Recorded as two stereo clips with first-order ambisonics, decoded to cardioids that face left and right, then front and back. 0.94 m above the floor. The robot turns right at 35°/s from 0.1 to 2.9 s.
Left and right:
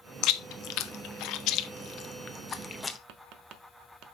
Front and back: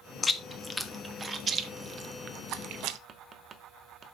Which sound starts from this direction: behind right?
Tapping, at 3.1 s.